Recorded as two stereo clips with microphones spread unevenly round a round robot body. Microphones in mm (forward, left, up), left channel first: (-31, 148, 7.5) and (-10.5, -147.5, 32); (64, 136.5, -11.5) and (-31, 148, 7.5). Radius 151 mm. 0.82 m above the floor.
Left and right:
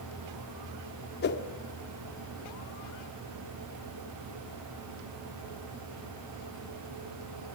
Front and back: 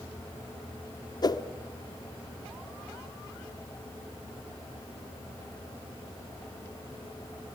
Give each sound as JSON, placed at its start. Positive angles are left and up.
{"t": 1.2, "sound": "a whoosh", "azimuth_deg": 35, "distance_m": 1.4}